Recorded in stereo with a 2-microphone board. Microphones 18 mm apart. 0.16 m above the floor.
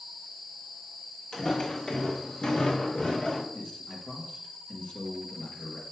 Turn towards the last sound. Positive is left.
turn(degrees=55)  # may be behind; listen again after turning